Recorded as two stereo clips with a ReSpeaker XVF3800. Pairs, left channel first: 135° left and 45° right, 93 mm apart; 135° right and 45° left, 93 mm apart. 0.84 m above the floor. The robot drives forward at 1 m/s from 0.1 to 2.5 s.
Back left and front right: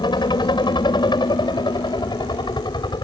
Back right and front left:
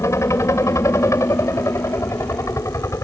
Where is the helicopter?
170° left.